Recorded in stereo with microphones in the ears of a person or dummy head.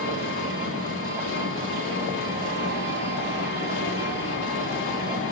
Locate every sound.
0.0 s an engine running: 60° left (ahead or behind), 2.5 m